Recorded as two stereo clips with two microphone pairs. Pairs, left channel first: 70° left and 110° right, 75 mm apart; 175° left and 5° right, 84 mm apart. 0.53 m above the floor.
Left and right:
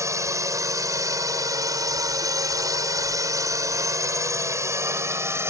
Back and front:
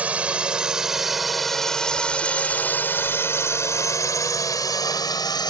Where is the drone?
75° right; by 5.5 s 160° right.